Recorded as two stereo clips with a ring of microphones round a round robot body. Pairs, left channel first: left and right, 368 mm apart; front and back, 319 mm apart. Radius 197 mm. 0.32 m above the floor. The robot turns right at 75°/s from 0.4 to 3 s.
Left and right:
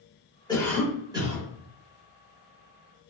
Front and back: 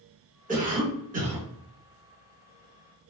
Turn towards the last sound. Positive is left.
turn(degrees=-15)